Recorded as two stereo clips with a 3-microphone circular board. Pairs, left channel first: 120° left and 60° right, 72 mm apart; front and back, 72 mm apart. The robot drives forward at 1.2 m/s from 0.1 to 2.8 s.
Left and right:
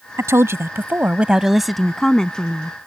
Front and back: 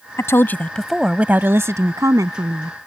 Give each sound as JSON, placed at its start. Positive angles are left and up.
{"t": 0.2, "sound": "a woman speaking", "azimuth_deg": -30}